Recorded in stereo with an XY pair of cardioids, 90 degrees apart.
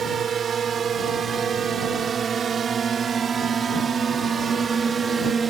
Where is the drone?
60° right; by 5.5 s 50° right.